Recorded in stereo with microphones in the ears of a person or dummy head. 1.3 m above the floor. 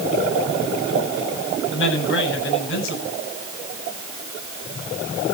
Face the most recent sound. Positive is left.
turn(degrees=80)